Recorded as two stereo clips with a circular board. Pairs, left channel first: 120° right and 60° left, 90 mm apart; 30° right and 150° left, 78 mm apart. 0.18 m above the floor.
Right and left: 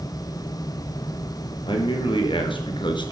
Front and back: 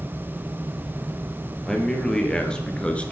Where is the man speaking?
115° right, 3.5 m; by 3.1 s 105° right, 2.5 m.